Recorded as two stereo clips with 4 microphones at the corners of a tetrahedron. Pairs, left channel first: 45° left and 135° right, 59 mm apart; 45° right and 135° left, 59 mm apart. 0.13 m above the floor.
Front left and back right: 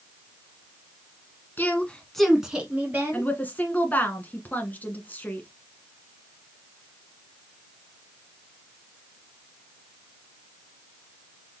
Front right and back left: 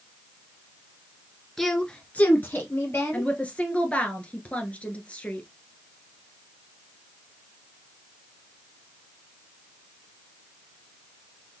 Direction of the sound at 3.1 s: 5° left.